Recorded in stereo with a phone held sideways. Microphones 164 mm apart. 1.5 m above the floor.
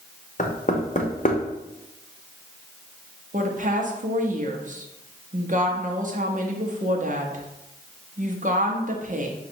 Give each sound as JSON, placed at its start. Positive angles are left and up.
{"t": 0.4, "sound": "knocking", "side_deg": 50, "distance_m": 0.7}
{"t": 3.3, "sound": "a woman speaking", "side_deg": -50, "distance_m": 0.8}